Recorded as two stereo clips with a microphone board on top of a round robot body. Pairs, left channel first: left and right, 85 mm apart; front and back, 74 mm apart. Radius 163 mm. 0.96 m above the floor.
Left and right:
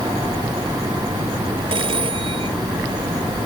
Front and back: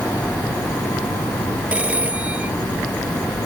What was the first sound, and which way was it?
A phone ringing, 110° right.